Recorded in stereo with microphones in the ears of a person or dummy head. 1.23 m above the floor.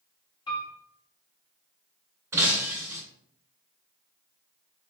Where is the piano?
20° left (ahead or behind), 1.0 m.